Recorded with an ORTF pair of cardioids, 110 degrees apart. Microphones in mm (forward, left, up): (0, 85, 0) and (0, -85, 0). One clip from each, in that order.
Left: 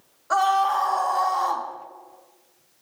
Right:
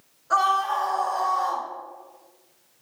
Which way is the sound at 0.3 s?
30° left.